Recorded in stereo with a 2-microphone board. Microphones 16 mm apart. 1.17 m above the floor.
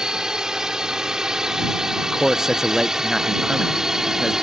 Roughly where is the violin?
No violin in this recording.